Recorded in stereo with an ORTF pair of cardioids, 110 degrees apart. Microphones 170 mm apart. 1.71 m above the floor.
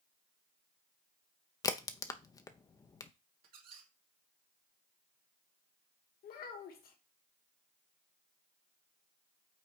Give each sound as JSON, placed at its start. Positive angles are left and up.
{"t": 1.6, "sound": "a crack", "azimuth_deg": 20, "distance_m": 0.8}
{"t": 3.4, "sound": "a squeak", "azimuth_deg": -65, "distance_m": 2.0}
{"t": 6.2, "sound": "a child speaking", "azimuth_deg": 65, "distance_m": 1.9}